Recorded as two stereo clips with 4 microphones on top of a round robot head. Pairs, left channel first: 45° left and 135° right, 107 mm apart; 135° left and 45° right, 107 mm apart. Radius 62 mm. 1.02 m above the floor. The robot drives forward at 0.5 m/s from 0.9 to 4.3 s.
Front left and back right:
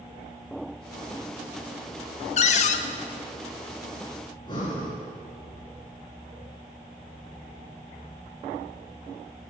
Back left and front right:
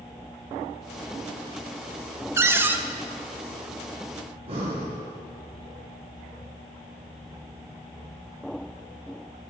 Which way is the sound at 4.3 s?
5° right.